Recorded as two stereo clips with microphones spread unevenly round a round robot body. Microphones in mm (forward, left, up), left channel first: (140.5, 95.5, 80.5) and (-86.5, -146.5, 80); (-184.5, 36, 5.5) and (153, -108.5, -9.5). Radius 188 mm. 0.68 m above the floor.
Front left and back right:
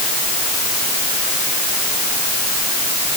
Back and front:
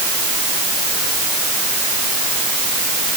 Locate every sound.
Only background noise.